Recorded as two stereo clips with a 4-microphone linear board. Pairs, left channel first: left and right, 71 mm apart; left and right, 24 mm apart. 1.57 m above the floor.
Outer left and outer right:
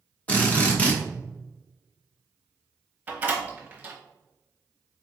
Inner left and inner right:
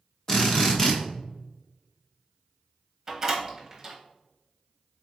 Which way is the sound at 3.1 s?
20° right (ahead or behind).